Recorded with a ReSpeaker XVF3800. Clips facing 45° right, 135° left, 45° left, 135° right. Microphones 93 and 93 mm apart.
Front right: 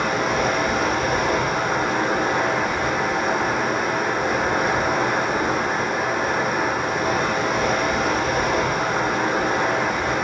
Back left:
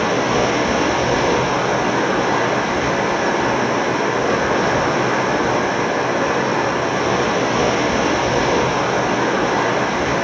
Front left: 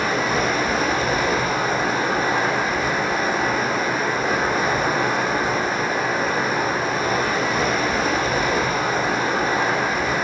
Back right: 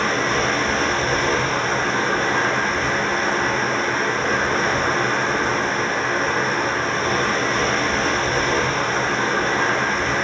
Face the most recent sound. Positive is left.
turn(degrees=125)